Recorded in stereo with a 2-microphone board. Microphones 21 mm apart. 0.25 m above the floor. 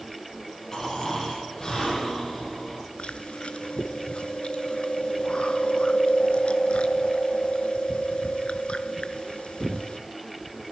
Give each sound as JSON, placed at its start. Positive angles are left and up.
{"t": 0.7, "sound": "snoring", "side_deg": 35, "distance_m": 9.5}
{"t": 3.0, "sound": "chewing", "side_deg": 75, "distance_m": 0.7}